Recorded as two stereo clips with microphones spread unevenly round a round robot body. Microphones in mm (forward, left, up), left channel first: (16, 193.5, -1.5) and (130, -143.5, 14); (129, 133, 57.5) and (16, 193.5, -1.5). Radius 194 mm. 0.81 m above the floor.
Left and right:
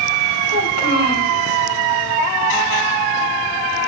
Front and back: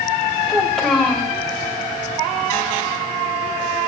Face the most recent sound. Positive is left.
turn(degrees=60)